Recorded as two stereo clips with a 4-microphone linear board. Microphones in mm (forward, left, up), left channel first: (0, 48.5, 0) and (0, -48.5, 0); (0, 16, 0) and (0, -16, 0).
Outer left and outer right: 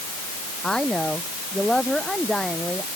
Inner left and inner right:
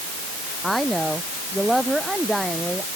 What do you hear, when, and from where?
0.6 s a woman speaking: 5° left (ahead or behind); by 3.0 s centre (ahead or behind)